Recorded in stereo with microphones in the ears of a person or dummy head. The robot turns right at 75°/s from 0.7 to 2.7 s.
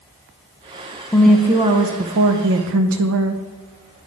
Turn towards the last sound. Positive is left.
turn(degrees=-75)